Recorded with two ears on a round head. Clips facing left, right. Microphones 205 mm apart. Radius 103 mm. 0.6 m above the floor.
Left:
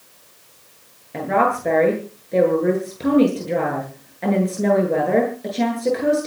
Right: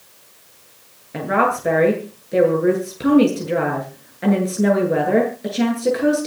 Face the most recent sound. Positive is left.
turn(degrees=-10)  # may be behind; listen again after turning